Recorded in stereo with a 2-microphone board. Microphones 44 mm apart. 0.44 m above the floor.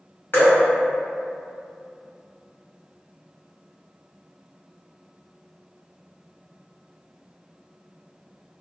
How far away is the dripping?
About 1.3 m.